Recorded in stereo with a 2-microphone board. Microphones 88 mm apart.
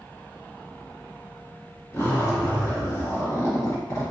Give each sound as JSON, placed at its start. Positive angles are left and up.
{"t": 1.9, "sound": "a zipper", "side_deg": 35, "distance_m": 1.4}